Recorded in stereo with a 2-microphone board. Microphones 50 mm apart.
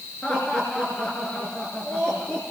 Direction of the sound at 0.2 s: 20° left (ahead or behind).